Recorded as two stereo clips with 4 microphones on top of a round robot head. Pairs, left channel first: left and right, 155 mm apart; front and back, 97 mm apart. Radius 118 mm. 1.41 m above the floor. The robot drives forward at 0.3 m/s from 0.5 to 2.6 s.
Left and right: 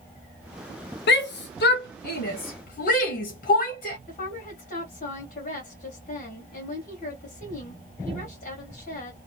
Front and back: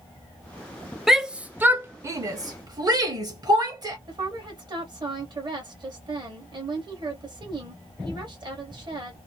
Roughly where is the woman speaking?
Behind left.